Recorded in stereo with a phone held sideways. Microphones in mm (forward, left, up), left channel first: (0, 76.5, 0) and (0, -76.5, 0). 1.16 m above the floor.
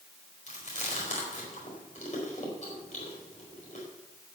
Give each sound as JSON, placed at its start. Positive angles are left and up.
{"t": 0.5, "sound": "chewing", "side_deg": 55, "distance_m": 4.0}